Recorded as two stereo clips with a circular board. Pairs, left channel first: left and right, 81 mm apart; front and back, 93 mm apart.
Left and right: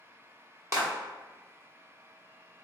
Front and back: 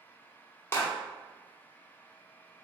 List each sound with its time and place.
0.7 s a clap: 55° right, 0.9 m